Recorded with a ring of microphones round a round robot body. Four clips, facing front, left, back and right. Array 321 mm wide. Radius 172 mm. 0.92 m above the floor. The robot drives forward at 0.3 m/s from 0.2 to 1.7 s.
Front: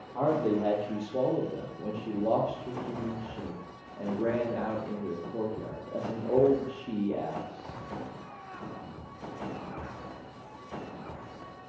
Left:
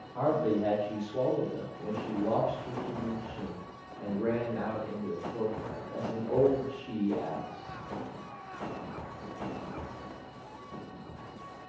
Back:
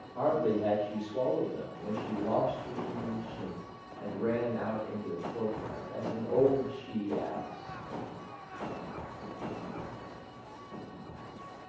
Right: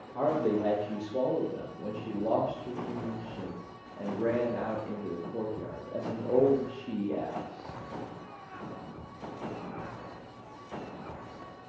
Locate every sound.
0.1 s a man speaking: 25° right, 1.2 m; by 7.8 s 40° right, 0.9 m